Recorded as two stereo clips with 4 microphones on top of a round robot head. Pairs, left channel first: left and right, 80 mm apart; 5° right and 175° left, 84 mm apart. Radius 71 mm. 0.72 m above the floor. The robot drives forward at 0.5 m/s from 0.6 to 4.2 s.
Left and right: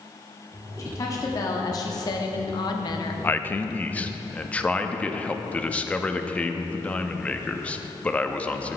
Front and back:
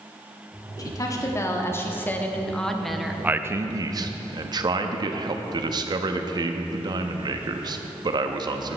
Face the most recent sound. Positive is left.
turn(degrees=160)